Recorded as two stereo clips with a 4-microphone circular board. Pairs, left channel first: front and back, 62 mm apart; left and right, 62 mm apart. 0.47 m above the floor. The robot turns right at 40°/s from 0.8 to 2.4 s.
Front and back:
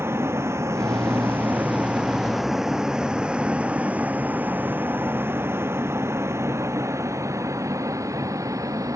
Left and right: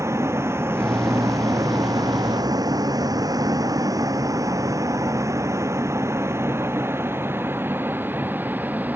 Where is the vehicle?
135° right; by 9.0 s 155° right.